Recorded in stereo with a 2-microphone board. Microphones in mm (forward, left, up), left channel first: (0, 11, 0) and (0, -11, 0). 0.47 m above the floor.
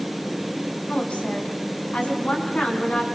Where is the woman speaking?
70° left (ahead or behind), 4.5 m; by 3.0 s 75° left (ahead or behind), 6 m.